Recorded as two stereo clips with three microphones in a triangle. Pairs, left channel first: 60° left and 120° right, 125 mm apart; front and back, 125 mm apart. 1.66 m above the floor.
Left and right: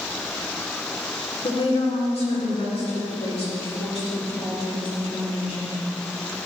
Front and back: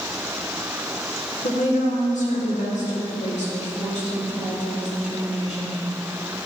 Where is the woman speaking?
20° left, 1.4 m.